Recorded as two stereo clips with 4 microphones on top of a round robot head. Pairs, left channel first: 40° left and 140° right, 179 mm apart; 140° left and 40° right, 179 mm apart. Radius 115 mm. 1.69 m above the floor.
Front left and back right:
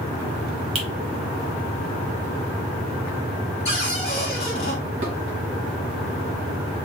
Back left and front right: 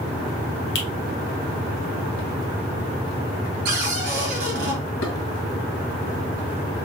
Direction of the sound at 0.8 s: 165° left.